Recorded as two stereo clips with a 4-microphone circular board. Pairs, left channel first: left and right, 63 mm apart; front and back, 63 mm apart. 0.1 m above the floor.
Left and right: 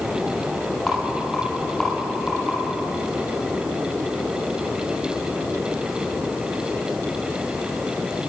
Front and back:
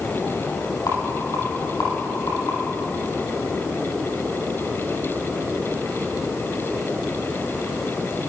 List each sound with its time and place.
0.9 s a rattle: 5° left, 5 m